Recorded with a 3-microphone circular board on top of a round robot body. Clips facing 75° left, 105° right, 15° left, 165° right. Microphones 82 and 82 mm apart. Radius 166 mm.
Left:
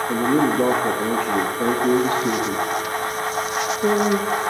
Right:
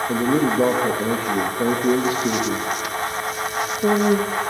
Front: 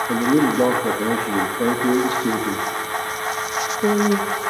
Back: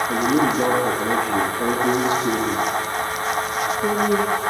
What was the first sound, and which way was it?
A man speaking, 30° right.